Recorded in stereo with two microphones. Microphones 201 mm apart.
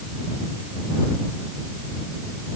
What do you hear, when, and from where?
Only background noise.